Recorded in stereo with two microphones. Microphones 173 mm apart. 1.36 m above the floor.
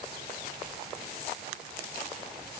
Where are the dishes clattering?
No dishes clattering in this recording.